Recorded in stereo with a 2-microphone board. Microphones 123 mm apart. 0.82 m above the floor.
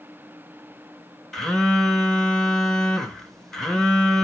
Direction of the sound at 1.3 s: 5° left (ahead or behind).